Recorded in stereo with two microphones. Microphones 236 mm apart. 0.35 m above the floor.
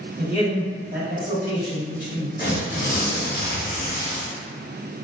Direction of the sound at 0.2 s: 35° right (ahead or behind).